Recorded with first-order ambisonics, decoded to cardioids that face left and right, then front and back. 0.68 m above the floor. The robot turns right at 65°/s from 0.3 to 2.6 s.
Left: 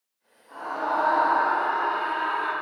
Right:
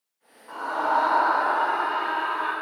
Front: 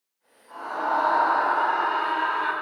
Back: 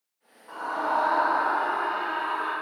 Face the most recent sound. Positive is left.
turn(degrees=15)